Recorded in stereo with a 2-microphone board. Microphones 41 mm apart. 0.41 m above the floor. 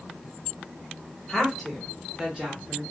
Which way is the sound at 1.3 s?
5° left (ahead or behind).